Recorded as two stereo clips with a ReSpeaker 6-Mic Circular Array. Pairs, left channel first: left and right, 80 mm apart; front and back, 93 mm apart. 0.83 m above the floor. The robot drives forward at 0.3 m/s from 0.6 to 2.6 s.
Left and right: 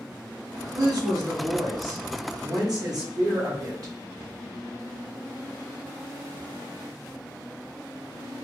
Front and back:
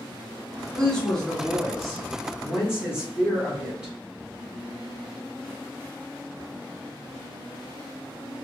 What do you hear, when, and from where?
0.8 s a woman speaking: 75° right, 1.6 m; by 3.9 s 100° right, 1.5 m